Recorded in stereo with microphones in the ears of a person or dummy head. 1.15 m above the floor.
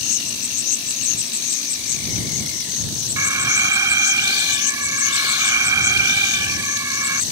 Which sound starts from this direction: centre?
An alarm, at 3.2 s.